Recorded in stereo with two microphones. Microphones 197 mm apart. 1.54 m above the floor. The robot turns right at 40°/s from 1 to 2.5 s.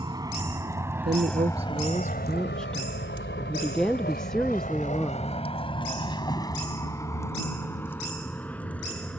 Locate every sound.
0.0 s a vehicle: 20° right (ahead or behind); by 9.2 s 5° left (ahead or behind)
1.1 s a woman speaking: 55° right; by 5.4 s 5° left